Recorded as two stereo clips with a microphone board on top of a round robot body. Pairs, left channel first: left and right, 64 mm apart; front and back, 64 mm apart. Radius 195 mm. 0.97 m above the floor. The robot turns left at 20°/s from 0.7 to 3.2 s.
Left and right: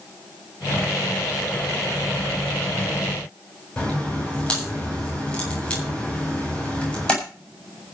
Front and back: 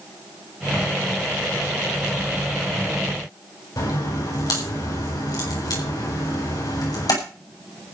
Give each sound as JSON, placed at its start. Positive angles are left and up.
{"t": 3.8, "sound": "a crack", "azimuth_deg": 15, "distance_m": 7.5}